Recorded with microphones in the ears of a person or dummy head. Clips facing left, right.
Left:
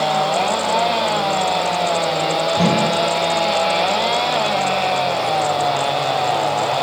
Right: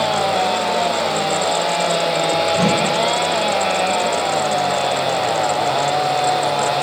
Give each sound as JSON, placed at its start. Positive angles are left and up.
{"t": 2.5, "sound": "a whoosh", "side_deg": 0, "distance_m": 1.9}